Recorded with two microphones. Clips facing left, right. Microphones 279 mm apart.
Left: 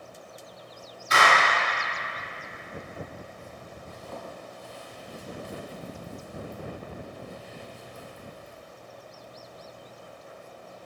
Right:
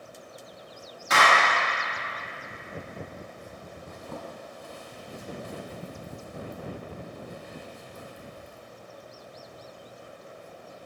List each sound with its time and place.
1.1 s a clap: 80° right, 3 m
3.9 s a zipper: 55° right (ahead or behind), 1.3 m